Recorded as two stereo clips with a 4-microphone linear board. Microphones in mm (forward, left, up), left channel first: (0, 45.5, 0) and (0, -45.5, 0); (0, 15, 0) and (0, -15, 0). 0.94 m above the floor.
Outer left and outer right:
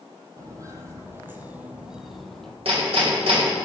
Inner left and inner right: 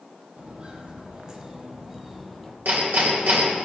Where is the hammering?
80° right, 2.5 m.